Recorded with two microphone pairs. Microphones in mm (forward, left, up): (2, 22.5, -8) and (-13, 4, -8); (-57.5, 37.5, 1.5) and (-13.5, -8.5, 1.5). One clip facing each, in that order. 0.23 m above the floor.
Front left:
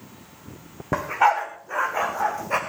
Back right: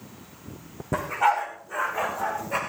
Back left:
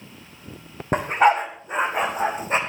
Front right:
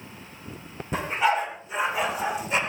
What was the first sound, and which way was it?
A dog barking, 100° left.